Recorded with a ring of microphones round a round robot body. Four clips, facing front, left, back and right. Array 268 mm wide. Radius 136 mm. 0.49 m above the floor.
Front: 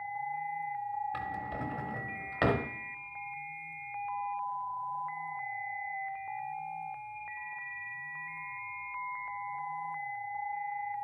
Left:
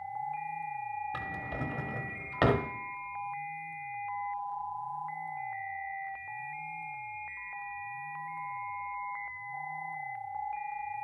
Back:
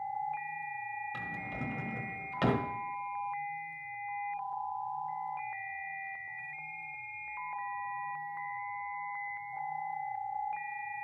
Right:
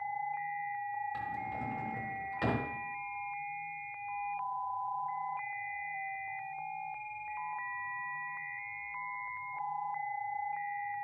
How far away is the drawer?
About 0.8 m.